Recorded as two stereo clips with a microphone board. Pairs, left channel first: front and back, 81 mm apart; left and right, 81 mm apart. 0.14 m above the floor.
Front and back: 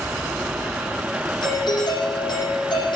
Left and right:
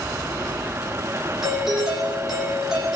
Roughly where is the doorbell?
Ahead.